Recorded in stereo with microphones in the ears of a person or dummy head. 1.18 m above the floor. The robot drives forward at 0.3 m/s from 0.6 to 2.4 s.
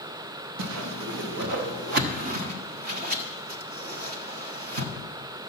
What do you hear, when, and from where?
0.6 s a whoosh: 65° right (ahead or behind), 0.8 m; by 4.9 s 45° right (ahead or behind), 1.1 m